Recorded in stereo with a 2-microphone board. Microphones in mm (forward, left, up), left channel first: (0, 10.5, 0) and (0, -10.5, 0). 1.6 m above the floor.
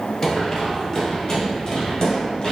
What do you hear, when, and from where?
0.2 s running footsteps: 35° left (ahead or behind), 1.8 m; by 2.5 s 45° left (ahead or behind), 2.5 m